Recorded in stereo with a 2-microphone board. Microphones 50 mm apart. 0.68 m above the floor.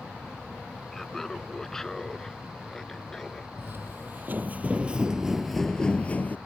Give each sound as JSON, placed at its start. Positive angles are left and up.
{"t": 0.9, "sound": "laughter", "side_deg": 10}
{"t": 3.6, "sound": "footsteps", "side_deg": -50}